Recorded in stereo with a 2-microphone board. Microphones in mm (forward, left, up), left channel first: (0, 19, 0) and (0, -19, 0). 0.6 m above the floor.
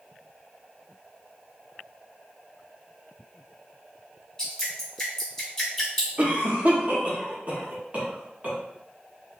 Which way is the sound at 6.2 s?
40° right (ahead or behind).